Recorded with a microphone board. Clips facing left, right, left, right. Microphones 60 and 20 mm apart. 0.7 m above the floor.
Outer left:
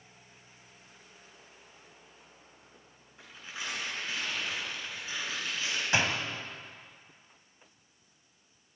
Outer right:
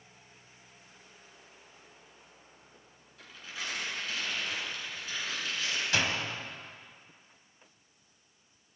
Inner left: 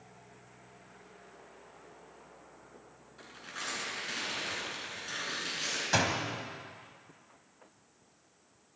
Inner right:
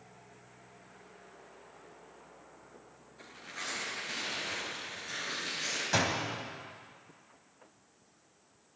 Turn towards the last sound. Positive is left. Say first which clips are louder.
# outer left 2 dB, inner left 1 dB
turn(degrees=25)  # may be behind; listen again after turning